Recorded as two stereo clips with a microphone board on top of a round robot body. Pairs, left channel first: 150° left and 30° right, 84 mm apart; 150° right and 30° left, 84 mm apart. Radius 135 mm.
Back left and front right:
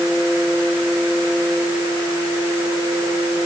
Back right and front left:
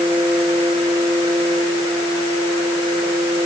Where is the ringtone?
No ringtone in this recording.